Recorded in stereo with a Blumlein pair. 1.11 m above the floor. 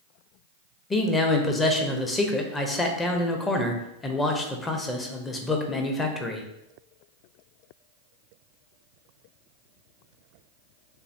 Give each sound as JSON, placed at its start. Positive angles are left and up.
{"t": 0.9, "sound": "a man speaking", "azimuth_deg": 15, "distance_m": 0.8}